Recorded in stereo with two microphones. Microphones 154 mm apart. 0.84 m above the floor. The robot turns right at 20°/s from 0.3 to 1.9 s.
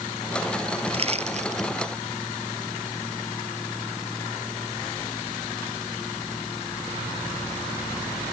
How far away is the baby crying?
I don't hear a baby crying.